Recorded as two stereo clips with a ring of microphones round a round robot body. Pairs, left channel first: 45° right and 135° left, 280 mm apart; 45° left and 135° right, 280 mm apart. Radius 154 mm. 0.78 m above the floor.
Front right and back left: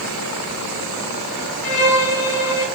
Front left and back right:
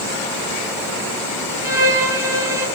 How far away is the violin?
About 5.5 m.